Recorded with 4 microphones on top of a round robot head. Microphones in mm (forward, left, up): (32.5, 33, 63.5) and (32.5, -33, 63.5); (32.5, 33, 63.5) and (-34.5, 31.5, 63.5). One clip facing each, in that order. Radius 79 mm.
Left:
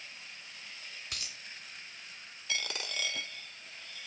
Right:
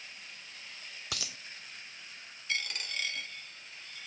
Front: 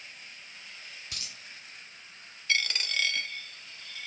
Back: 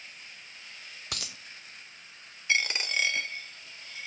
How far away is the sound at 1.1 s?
About 0.6 m.